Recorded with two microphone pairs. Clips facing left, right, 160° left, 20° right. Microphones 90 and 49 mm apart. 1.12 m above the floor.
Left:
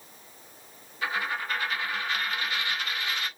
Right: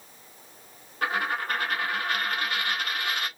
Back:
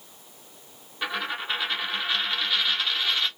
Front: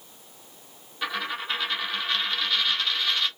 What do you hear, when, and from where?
1.0 s a dropped coin: 120° right, 1.2 m